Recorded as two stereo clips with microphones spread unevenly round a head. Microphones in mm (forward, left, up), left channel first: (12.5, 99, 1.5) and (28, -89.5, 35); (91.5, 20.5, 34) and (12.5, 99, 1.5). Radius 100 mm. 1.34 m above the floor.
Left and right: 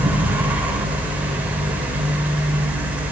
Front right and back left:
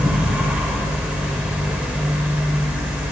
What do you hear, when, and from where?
0.0 s a fan: 175° right, 0.9 m